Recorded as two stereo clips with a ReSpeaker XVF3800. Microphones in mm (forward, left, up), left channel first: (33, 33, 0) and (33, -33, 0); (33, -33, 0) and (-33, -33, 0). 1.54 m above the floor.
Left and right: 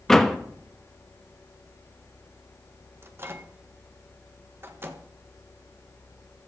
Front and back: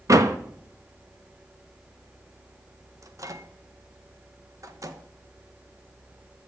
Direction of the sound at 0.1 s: 175° left.